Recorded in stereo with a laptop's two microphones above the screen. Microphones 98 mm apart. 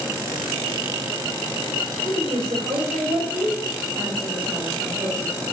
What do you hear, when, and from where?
2.0 s a woman speaking: 80° right, 4.5 m; by 5.5 s 70° right (ahead or behind), 4 m